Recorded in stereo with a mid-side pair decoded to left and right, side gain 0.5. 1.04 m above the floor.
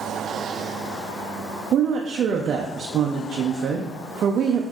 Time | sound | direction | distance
1.7 | a woman speaking | 55° right | 0.5 m